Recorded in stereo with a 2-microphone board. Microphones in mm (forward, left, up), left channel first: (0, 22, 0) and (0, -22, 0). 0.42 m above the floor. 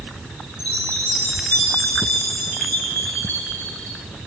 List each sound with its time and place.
0.6 s a chime: 55° left (ahead or behind), 2.5 m